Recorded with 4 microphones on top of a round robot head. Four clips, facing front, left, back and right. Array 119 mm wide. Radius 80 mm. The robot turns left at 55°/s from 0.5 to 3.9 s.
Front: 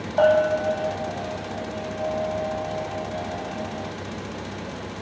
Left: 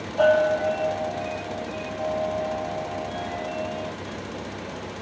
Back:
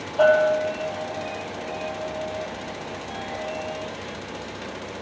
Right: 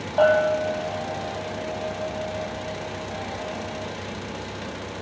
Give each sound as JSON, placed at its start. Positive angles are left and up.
{"t": 0.2, "sound": "a bell", "azimuth_deg": -40, "distance_m": 0.7}